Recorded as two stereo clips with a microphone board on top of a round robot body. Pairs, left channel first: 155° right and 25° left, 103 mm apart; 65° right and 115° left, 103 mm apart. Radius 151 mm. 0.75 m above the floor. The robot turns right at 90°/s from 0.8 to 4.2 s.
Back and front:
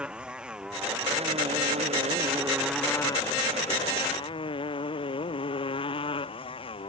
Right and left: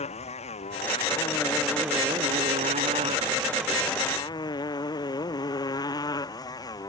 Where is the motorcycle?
60° right; by 6.9 s 120° right.